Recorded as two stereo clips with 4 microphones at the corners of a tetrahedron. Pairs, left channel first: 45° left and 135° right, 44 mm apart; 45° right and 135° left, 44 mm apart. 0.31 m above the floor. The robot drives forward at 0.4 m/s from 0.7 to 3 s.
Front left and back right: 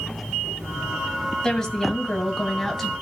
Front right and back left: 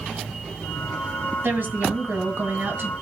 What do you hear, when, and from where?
1.4 s a woman speaking: 115° left, 1.8 m; by 2.9 s 130° left, 2 m